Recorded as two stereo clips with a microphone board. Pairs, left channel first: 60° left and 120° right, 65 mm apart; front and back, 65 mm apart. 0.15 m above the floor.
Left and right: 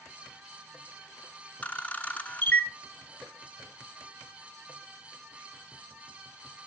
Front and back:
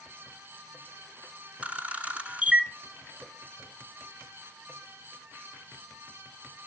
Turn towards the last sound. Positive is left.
turn(degrees=120)